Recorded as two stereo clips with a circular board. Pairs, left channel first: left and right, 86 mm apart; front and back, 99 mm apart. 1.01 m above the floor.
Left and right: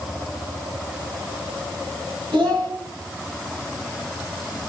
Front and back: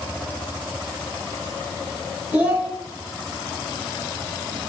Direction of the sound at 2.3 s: 110° right.